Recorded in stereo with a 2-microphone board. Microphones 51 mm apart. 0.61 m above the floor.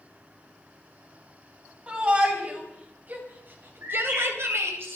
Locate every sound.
1.9 s a shout: 20° right (ahead or behind), 3.5 m; by 4.8 s 60° right (ahead or behind), 2.5 m
3.8 s a bird: 50° right (ahead or behind), 8.5 m